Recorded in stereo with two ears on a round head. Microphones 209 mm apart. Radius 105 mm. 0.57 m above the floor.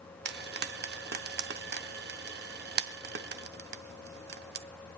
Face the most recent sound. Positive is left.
turn(degrees=-45)  # may be behind; listen again after turning